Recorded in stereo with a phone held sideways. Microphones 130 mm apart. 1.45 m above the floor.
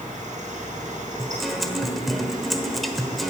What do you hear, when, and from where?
0.0 s a fan: 75° right (ahead or behind), 4.5 m
1.2 s a guitar: centre (ahead or behind), 1.2 m